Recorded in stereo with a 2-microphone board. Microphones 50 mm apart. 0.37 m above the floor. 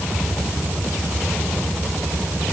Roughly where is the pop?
I don't hear a pop.